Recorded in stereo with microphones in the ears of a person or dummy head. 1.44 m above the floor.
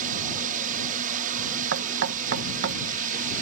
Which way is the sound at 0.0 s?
50° right (ahead or behind).